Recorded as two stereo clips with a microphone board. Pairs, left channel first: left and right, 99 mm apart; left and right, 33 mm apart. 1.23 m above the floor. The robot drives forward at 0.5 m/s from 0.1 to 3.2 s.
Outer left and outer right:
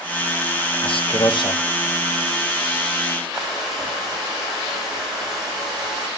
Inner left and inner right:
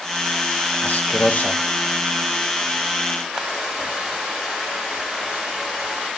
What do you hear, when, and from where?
0.8 s a man speaking: 70° left (ahead or behind), 1.2 m; by 1.6 s 55° left (ahead or behind), 1.3 m
3.3 s a hair dryer: 10° right (ahead or behind), 6 m